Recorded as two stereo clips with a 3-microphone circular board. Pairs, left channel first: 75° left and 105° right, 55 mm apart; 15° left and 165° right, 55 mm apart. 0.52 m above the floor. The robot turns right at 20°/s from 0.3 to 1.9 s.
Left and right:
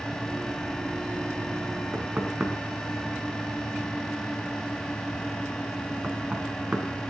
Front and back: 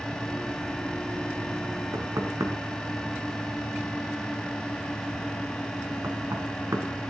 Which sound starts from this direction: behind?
Knocking, at 1.9 s.